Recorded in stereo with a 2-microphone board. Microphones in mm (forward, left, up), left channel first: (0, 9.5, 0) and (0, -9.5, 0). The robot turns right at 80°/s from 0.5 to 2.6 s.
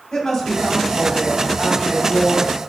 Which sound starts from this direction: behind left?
A woman speaking, at 0.1 s.